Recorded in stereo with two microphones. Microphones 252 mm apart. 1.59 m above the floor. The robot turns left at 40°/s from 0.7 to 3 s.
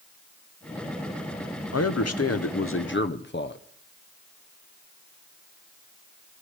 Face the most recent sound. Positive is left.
turn(degrees=45)